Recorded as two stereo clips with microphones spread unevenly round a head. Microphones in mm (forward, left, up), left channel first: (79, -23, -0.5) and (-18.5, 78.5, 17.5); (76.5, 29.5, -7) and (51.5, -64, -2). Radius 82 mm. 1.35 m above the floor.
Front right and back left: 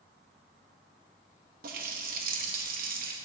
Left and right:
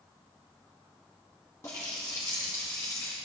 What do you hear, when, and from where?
1.6 s a running tap: 145° left, 1.1 m